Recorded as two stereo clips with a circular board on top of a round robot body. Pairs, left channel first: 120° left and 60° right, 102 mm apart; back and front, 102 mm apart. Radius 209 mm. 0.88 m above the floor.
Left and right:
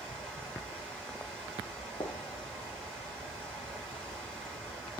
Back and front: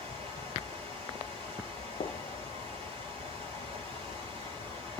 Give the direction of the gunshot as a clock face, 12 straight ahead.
6 o'clock.